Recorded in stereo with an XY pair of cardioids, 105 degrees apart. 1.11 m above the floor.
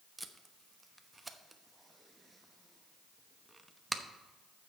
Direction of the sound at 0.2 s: 10° right.